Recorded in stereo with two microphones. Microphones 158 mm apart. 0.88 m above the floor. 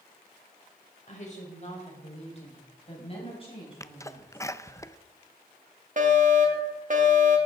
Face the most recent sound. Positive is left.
turn(degrees=-55)  # may be behind; listen again after turning